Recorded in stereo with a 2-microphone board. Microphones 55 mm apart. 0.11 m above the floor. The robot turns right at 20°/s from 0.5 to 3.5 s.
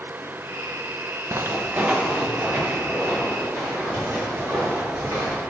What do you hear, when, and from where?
1.3 s footsteps: 50° right (ahead or behind), 0.6 m; by 5.4 s 30° right (ahead or behind), 6 m